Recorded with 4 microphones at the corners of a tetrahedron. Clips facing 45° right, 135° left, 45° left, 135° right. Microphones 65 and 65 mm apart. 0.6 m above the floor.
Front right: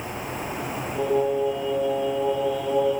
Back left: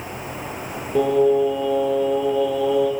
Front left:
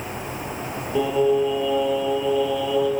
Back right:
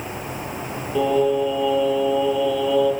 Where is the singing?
130° left, 7.5 m.